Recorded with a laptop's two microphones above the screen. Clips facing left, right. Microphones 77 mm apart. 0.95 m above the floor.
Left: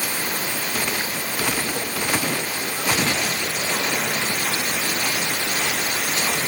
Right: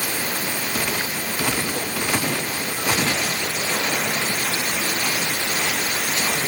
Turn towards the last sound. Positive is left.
No sound to turn to.